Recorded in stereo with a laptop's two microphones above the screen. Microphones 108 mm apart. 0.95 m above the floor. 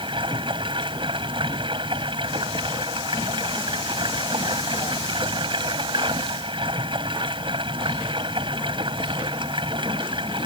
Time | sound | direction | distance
0.0 | running water | 50° right (ahead or behind) | ?